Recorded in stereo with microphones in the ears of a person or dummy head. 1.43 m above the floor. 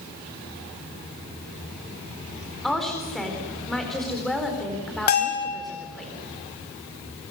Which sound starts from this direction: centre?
A woman speaking, at 2.6 s.